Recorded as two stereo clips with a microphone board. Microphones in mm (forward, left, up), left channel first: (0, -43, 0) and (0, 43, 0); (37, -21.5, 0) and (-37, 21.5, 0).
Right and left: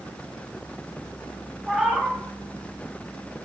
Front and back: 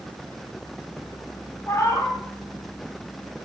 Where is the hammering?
No hammering in this recording.